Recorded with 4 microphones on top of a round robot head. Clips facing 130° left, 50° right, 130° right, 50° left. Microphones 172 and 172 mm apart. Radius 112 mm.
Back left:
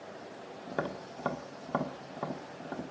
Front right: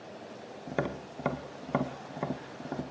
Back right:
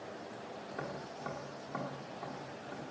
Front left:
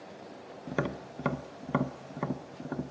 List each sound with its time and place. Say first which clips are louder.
0.7 s tapping: front right 3 dB, front left 11 dB; 30° left, 1.1 m